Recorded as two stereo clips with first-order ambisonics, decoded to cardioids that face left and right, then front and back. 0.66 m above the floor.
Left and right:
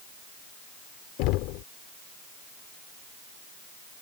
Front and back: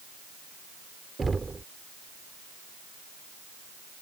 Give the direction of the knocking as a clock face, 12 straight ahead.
9 o'clock.